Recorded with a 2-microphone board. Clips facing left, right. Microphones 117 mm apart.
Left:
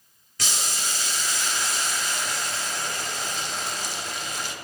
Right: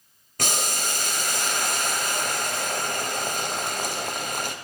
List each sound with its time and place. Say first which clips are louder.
0.4 s boiling: right 5 dB; 55° right (ahead or behind), 0.6 m